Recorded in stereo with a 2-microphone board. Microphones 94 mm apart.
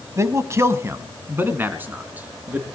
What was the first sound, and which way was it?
A man speaking, 35° right (ahead or behind).